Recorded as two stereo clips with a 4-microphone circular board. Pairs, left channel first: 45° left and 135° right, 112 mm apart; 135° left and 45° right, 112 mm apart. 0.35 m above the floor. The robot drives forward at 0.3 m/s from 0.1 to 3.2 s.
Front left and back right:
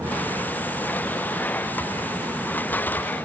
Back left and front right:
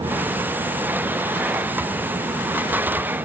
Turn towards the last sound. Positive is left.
No sound to turn to.